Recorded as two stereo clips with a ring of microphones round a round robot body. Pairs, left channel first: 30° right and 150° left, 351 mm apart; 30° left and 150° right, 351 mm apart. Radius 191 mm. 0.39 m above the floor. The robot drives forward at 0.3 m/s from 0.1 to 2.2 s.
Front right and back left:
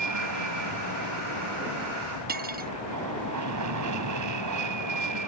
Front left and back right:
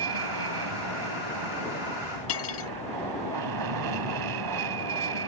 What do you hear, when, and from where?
0.0 s an aircraft: 170° right
2.3 s cutlery clinking: 85° left